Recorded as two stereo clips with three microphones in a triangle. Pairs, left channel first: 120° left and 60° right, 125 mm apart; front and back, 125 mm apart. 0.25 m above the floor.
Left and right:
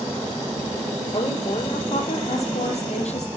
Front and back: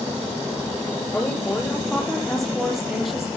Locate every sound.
1.1 s a woman speaking: 80° left, 5.5 m; by 3.3 s 95° left, 6.5 m